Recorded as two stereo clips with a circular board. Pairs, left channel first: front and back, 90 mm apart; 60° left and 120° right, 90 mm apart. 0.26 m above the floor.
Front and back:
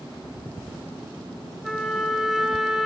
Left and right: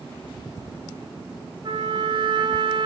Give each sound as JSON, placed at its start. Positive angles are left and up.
{"t": 1.6, "sound": "a trumpet", "azimuth_deg": -90, "distance_m": 2.5}